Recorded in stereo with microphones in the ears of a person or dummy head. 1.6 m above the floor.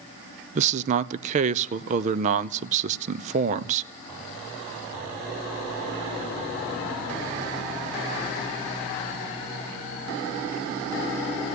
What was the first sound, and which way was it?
A man speaking, 45° right (ahead or behind).